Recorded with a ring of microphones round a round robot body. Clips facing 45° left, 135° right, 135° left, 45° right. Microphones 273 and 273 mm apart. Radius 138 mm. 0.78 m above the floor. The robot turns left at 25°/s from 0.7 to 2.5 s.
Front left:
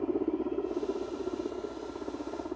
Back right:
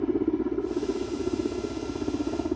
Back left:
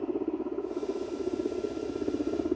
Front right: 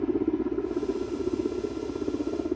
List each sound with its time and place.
0.0 s a helicopter: 90° right; by 2.6 s 135° right